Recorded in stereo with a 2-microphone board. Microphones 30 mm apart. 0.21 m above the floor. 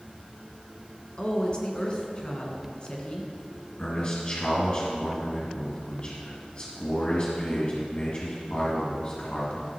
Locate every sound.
1.2 s a woman speaking: 35° left (ahead or behind), 2 m
3.8 s a man speaking: 40° left (ahead or behind), 1.9 m